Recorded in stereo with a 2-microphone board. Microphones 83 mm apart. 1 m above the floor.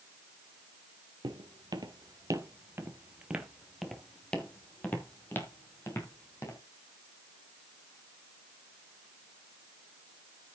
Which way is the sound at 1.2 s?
60° right (ahead or behind).